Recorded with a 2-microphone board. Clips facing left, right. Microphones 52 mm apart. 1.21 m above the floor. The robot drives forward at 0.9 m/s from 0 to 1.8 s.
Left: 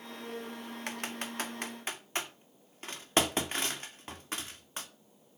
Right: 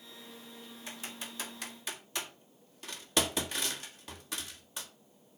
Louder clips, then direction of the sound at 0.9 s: Left 6 dB; 65° left (ahead or behind).